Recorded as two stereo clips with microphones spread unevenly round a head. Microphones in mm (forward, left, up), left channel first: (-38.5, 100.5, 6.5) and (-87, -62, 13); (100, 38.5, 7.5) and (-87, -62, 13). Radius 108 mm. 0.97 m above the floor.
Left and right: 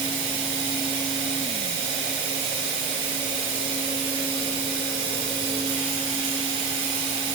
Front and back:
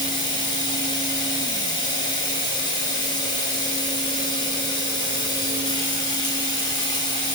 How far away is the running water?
About 1.1 m.